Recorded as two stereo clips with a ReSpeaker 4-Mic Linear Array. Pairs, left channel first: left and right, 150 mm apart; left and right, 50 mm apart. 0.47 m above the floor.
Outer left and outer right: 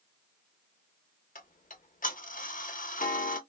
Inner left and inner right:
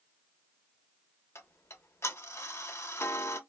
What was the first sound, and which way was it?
Ticking, 65° left (ahead or behind).